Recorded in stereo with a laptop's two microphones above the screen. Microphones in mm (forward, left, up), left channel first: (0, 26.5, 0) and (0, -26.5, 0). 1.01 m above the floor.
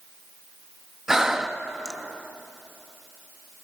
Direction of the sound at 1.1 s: 10° right (ahead or behind).